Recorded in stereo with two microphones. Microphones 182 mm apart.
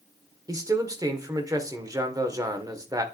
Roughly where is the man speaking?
Centre.